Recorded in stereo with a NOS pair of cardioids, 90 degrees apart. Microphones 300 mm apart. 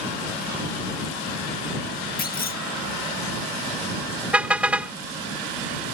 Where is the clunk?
30° left.